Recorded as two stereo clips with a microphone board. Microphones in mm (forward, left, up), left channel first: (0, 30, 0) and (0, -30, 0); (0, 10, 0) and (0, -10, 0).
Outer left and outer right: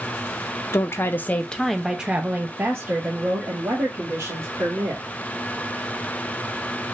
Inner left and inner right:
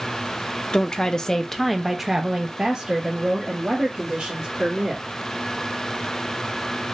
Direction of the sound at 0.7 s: 55° left (ahead or behind).